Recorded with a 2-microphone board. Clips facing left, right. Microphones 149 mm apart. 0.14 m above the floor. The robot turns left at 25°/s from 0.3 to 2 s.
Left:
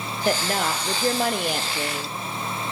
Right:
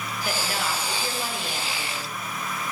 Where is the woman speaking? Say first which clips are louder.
Left 6 dB; 130° left, 3.5 m; by 2.2 s 85° left, 3.5 m.